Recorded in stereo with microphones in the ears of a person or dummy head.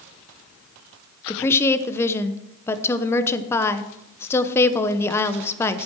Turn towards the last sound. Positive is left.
turn(degrees=15)  # may be behind; listen again after turning